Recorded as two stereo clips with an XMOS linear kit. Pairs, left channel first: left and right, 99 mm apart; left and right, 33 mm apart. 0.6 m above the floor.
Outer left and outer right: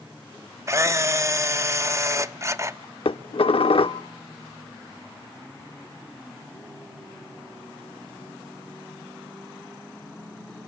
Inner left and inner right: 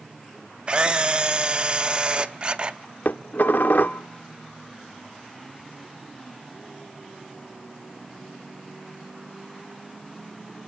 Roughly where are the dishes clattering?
Left.